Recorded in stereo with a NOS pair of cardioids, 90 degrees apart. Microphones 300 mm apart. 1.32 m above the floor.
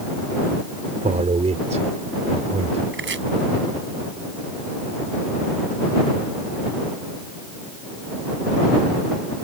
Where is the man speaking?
25° right.